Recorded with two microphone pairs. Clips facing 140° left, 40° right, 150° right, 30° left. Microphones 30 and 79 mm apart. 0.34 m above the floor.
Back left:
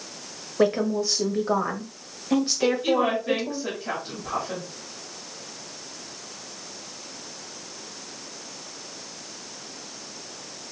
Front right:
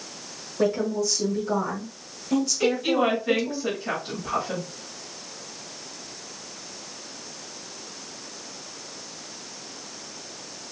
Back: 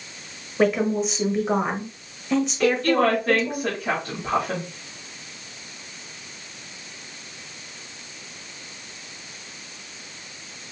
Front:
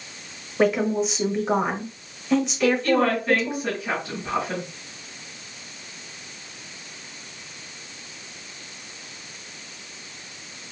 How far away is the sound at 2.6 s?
About 2 m.